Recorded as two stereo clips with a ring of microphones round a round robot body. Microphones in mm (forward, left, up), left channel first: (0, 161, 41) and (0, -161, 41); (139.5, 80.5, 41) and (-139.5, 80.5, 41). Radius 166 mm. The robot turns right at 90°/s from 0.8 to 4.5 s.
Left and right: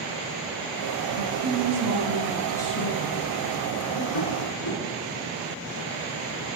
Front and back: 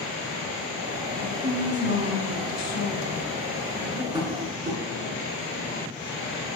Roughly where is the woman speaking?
Behind right.